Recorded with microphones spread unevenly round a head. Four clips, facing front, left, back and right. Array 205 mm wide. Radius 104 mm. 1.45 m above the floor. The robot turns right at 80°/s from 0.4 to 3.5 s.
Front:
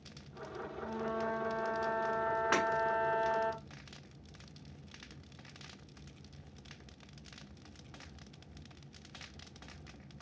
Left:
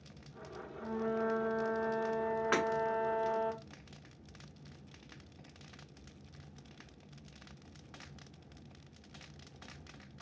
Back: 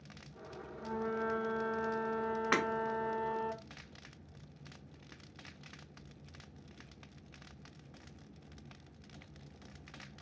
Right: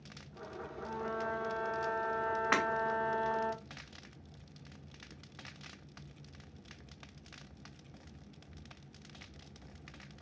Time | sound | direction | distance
0.8 | a flute | 130° left | 1.4 m
2.5 | breaking glass | 115° right | 1.4 m